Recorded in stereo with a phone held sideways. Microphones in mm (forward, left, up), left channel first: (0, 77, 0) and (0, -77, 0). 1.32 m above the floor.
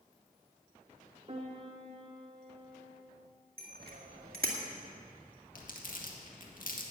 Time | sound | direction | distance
1.3 | a piano | 40° right (ahead or behind) | 1.4 m
3.6 | a bicycle bell | 80° right | 2 m
5.5 | crumpling | 65° left (ahead or behind) | 2.0 m